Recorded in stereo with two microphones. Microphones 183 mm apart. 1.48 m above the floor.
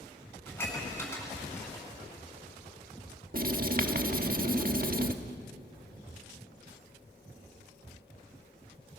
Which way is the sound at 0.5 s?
10° left (ahead or behind).